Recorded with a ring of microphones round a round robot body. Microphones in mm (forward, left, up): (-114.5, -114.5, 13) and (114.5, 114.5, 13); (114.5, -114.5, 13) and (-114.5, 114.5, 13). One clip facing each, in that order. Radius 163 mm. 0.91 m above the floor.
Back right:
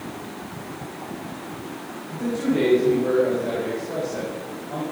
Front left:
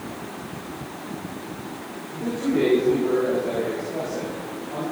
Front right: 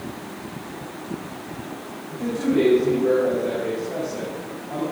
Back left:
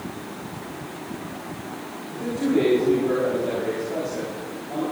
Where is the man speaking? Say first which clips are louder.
Back right 1 dB, front right 1 dB; 100° right, 6 m.